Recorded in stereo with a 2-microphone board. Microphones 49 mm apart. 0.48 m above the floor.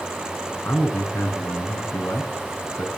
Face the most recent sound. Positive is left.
turn(degrees=70)  # may be behind; listen again after turning